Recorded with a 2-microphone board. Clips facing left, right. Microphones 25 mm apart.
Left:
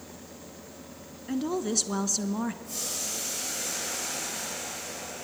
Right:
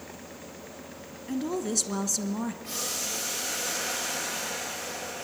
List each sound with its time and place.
1.3 s a woman speaking: 15° left (ahead or behind), 1.1 m
2.6 s boiling: 60° right (ahead or behind), 7.5 m